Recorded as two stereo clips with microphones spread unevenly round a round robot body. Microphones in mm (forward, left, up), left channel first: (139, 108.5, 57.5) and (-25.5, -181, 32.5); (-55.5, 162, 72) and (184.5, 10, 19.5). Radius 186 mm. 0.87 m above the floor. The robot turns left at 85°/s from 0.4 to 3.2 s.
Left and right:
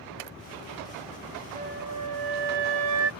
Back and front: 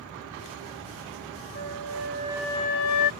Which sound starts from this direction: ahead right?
A flute, at 1.6 s.